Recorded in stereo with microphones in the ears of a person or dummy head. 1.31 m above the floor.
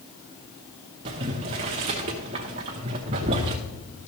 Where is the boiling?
20° right (ahead or behind), 0.8 m.